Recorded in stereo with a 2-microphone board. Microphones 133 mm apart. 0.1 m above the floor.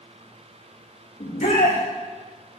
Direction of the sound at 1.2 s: 75° left (ahead or behind).